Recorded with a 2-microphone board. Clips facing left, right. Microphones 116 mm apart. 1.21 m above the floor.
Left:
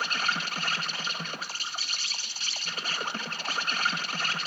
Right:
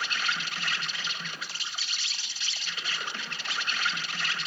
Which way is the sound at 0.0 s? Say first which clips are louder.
Left 2 dB; 40° left (ahead or behind).